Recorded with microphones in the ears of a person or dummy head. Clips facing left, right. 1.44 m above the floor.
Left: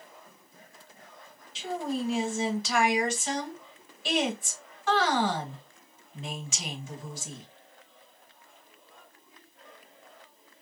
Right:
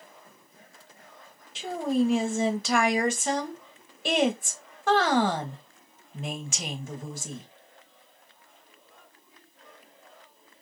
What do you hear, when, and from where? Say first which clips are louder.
1.6 s a woman speaking: right 6 dB; 40° right (ahead or behind), 1.0 m